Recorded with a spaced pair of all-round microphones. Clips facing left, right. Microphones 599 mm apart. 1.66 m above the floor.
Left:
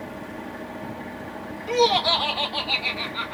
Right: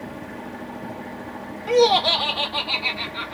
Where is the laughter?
75° right (ahead or behind), 0.6 m; by 3.4 s 15° right (ahead or behind), 1.0 m.